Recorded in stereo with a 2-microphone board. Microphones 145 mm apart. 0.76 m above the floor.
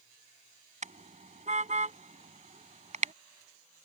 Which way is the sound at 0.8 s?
55° right (ahead or behind).